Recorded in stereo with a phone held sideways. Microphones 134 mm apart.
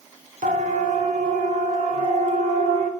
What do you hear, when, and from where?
0.4 s a siren: 70° right (ahead or behind), 4.5 m